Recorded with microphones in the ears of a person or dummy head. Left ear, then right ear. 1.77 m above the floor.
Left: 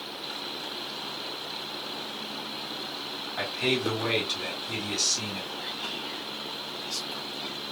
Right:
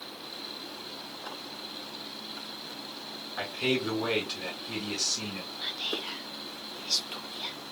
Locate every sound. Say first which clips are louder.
3.4 s a man speaking: left 2 dB; 5° left (ahead or behind), 2 m
5.6 s whispering: right 1 dB; 35° right (ahead or behind), 0.8 m